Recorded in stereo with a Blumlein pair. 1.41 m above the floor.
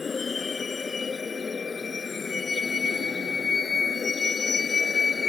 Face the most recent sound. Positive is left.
turn(degrees=15)